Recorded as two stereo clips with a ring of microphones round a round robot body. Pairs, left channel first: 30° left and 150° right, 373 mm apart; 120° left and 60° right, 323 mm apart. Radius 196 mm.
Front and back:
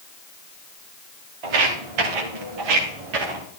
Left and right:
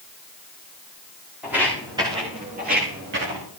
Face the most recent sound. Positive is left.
turn(degrees=-120)